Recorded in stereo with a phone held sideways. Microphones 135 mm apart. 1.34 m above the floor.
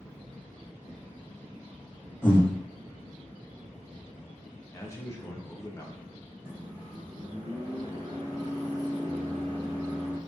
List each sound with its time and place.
2.2 s breathing: 20° left (ahead or behind), 0.7 m
4.7 s a man speaking: 20° left (ahead or behind), 0.6 m
6.5 s a microwave: 10° right (ahead or behind), 1.3 m